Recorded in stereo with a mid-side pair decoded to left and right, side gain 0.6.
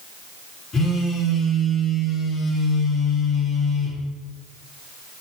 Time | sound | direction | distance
0.7 | a phone buzzing | 30° left | 1.7 m